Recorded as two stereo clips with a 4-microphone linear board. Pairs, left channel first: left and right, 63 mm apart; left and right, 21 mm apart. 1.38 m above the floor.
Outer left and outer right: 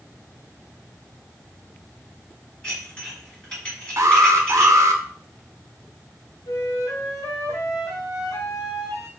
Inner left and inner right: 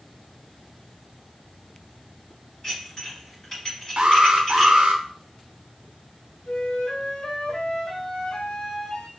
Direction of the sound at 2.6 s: 20° left (ahead or behind).